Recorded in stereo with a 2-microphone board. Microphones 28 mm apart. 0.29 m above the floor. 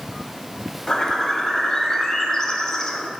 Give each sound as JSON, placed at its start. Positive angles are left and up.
{"t": 0.9, "sound": "a bird", "side_deg": 25, "distance_m": 0.5}